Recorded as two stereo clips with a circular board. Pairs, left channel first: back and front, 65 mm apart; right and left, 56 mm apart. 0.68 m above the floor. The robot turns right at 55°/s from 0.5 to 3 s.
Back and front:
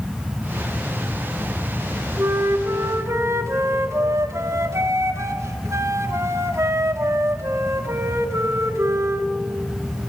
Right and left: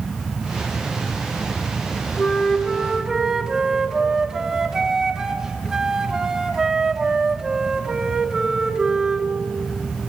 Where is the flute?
30° right, 1.6 m; by 9.3 s 15° left, 1.6 m.